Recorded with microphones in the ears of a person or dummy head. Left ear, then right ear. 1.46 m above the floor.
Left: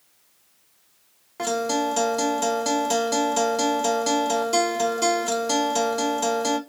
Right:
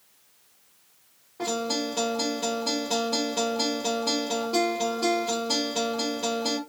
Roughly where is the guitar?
Left.